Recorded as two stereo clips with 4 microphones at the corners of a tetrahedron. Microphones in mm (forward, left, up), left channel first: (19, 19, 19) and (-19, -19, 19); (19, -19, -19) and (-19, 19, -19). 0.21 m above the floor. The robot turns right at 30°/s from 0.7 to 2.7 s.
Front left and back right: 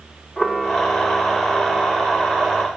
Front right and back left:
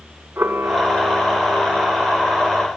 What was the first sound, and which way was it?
A camera shutter, 135° left.